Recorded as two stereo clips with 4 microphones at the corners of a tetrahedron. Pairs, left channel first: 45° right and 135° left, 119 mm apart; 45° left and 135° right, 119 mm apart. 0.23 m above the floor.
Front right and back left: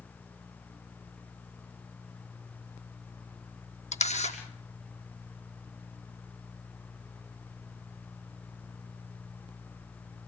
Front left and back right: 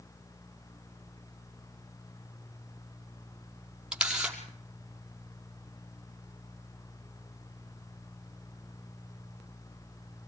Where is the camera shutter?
55° right, 4.5 m.